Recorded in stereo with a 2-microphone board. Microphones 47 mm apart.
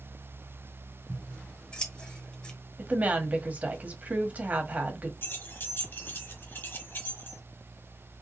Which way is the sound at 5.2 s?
50° left (ahead or behind).